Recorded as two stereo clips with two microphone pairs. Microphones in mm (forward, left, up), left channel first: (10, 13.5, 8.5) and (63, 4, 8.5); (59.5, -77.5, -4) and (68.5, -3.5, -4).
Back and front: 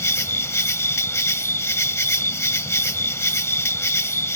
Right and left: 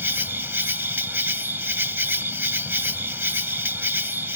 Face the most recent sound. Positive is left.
turn(degrees=145)